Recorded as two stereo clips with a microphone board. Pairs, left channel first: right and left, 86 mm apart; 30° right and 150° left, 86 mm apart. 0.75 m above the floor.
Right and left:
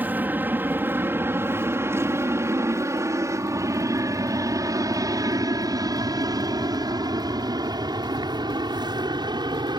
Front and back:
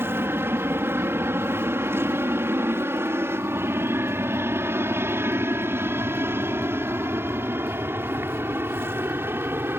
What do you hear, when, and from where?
0.0 s an aircraft: 135° left; by 9.8 s 90° left